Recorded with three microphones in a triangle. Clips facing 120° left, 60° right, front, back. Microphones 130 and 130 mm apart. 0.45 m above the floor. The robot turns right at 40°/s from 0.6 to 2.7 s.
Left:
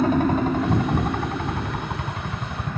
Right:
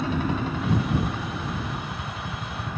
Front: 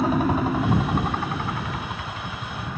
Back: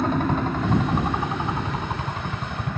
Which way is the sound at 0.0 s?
80° left.